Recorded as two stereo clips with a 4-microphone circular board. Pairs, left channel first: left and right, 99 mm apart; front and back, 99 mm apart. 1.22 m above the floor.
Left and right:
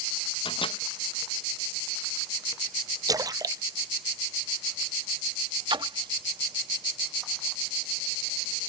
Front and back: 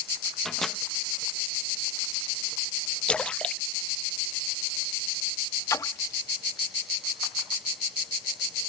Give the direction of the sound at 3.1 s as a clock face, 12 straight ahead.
2 o'clock.